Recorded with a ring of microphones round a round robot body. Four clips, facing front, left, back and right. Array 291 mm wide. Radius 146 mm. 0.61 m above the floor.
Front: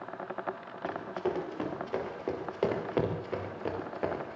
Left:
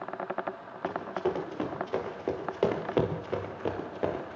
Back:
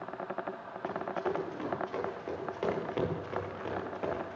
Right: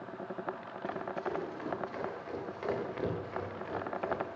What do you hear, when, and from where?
0.8 s running footsteps: 60° left, 9.5 m; by 4.4 s 70° left, 5 m